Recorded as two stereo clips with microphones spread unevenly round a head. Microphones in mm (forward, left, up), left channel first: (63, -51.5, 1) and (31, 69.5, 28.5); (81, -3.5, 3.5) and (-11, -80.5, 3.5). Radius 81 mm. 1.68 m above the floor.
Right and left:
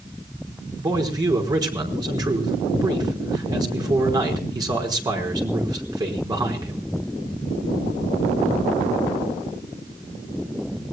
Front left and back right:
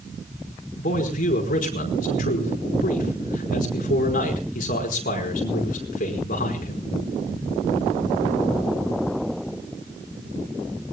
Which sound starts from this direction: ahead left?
A man speaking, at 0.8 s.